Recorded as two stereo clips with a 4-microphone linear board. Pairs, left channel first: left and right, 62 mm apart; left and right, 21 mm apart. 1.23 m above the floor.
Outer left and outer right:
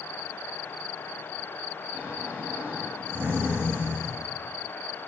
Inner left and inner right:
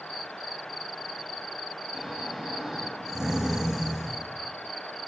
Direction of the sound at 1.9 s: 25° right (ahead or behind).